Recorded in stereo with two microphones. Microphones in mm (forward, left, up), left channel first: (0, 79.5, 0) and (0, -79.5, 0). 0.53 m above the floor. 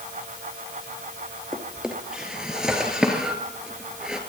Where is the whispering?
No whispering in this recording.